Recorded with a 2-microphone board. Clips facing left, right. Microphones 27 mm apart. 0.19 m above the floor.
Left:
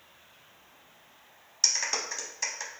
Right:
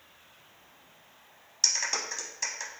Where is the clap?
5° left (ahead or behind), 0.8 m.